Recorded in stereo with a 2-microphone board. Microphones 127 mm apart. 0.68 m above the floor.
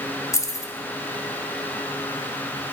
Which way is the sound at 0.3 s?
25° left (ahead or behind).